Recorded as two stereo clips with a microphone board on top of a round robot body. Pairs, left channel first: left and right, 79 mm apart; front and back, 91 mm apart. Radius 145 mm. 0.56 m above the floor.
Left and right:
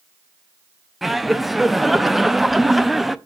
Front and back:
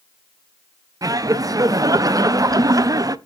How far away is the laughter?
About 0.7 m.